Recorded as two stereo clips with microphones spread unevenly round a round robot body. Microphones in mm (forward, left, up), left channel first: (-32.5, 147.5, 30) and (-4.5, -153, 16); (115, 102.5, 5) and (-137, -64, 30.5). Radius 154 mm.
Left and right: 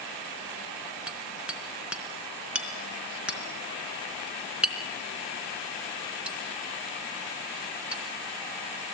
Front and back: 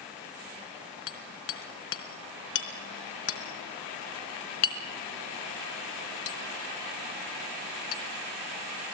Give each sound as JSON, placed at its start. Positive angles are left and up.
{"t": 1.1, "sound": "hammering", "azimuth_deg": 0, "distance_m": 3.5}